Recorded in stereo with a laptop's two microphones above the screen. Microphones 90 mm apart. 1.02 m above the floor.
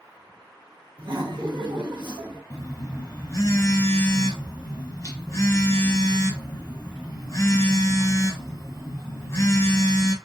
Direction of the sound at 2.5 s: 35° left (ahead or behind).